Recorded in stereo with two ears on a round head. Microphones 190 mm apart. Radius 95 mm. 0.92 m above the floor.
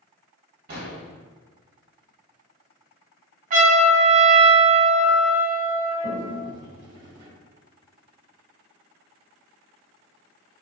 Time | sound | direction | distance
0.7 | an explosion | 55° right (ahead or behind) | 2.5 m
3.5 | a trumpet | 40° right (ahead or behind) | 1.9 m
6.0 | a toilet flushing | 55° right (ahead or behind) | 1.7 m